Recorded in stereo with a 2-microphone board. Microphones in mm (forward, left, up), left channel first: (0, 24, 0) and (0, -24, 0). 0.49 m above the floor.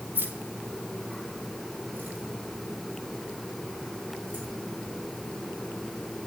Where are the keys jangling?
45° right (ahead or behind), 2.5 m; by 4.5 s 35° right (ahead or behind), 8 m.